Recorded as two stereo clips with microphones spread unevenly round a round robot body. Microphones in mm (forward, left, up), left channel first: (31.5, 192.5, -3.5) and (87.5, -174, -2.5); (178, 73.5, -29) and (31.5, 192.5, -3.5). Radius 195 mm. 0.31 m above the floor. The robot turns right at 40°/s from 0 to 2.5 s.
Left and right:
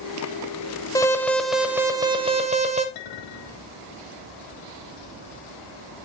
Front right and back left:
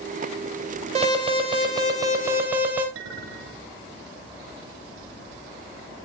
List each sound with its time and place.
0.9 s an alarm: 170° left, 0.7 m; by 2.9 s 130° right, 0.7 m
3.0 s a clink: 165° left, 3 m